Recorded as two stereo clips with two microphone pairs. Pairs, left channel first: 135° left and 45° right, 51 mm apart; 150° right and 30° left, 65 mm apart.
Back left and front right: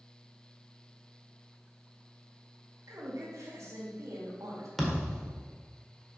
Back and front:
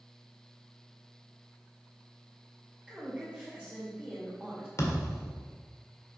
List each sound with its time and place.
2.9 s a woman speaking: 40° right, 2.5 m
4.8 s a thud: 145° right, 1.9 m